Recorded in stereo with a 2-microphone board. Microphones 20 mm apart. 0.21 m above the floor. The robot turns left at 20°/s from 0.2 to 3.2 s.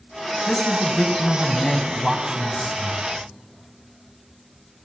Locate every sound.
0.5 s a man speaking: 25° left (ahead or behind), 1.1 m; by 3.0 s 10° left (ahead or behind), 1.1 m